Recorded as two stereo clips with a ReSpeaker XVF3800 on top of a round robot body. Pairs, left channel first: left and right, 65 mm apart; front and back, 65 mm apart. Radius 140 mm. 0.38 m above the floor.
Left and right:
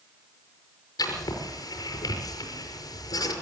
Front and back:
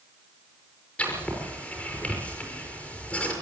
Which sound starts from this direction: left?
Writing, at 1.0 s.